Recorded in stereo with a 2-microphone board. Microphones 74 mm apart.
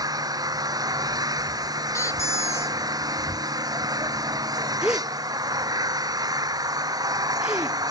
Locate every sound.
0.0 s an engine running: 55° right (ahead or behind)
1.9 s a squeak: 40° left (ahead or behind)
4.8 s a gasp: 15° right (ahead or behind)